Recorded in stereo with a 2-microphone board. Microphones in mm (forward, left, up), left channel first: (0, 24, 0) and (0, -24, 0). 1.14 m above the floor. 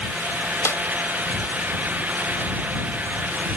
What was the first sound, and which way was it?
A snare drum, 70° left (ahead or behind).